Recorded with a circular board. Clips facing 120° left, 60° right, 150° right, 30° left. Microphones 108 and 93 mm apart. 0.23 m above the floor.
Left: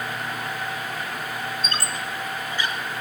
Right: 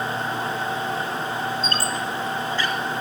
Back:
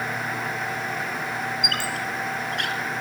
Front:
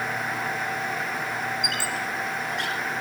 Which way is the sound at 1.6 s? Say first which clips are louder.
Right 4 dB, back 1 dB; 170° right.